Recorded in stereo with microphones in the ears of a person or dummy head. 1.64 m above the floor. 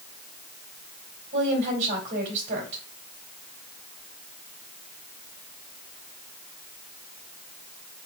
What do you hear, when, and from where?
1.3 s a woman speaking: 40° right (ahead or behind), 3 m